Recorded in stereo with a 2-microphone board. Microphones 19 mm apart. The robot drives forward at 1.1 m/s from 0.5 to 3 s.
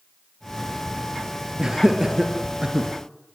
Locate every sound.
1.6 s laughter: 30° right (ahead or behind), 3 m; by 2.9 s 45° right (ahead or behind), 2.5 m